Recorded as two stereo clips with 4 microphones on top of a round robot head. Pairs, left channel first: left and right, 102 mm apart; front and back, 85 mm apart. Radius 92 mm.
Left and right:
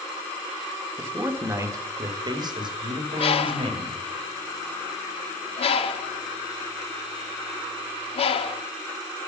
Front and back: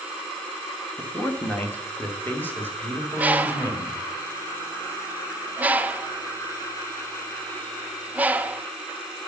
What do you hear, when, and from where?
1.0 s a man speaking: 35° right, 1.2 m; by 4.0 s 65° right, 2.5 m
3.2 s a bird: 105° left, 0.8 m